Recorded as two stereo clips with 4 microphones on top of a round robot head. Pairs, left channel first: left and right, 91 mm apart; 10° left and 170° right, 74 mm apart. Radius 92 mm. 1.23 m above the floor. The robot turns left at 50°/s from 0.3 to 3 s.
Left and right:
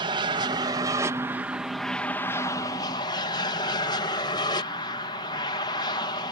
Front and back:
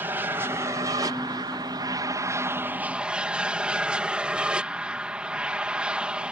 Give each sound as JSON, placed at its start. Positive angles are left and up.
{"t": 0.0, "sound": "an aircraft", "azimuth_deg": -105}